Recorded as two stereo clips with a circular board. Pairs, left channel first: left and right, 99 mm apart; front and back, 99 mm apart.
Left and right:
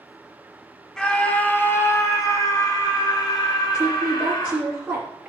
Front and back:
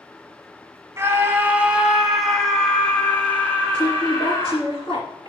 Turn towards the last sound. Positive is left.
turn(degrees=-20)